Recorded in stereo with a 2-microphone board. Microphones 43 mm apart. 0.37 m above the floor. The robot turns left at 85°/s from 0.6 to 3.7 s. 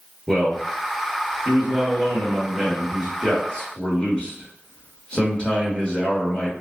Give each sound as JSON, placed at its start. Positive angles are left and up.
{"t": 0.3, "sound": "a man speaking", "side_deg": -10, "distance_m": 0.8}